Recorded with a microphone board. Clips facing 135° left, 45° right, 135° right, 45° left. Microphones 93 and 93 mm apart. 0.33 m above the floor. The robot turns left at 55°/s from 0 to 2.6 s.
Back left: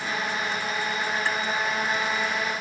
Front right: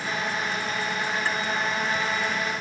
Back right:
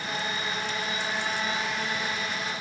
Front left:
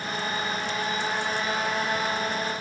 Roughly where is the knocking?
I don't hear knocking.